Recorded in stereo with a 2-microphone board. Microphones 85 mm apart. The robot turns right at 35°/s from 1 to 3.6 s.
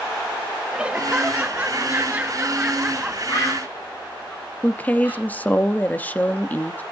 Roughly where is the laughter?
Centre.